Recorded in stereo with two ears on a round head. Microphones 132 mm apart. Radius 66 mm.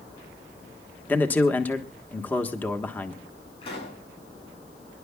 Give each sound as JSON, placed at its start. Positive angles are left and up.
{"t": 1.1, "sound": "a man speaking", "side_deg": 10, "distance_m": 1.3}
{"t": 3.6, "sound": "a pop", "side_deg": 35, "distance_m": 8.5}